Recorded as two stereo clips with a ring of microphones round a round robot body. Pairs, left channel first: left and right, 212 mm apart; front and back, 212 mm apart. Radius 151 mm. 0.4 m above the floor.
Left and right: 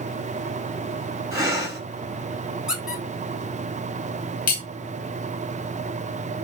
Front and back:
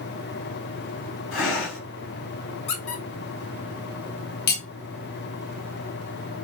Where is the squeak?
5° right, 1.5 m.